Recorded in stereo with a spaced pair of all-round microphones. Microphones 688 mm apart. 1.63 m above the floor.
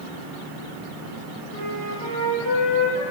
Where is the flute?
45° right (ahead or behind), 3 m.